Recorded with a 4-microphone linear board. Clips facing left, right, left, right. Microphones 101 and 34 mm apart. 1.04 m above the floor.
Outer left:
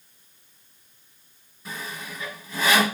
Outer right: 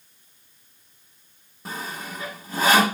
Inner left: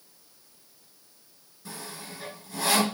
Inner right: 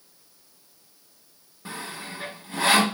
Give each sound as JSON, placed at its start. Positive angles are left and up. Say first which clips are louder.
{"t": 1.6, "sound": "sawing", "louder": "outer right 3 dB, inner right 5 dB", "side_deg": -40, "distance_m": 2.0}